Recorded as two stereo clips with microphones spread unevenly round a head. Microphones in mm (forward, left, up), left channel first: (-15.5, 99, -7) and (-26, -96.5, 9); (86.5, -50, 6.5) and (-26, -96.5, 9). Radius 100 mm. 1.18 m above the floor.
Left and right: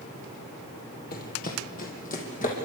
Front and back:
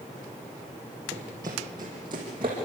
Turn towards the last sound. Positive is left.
turn(degrees=140)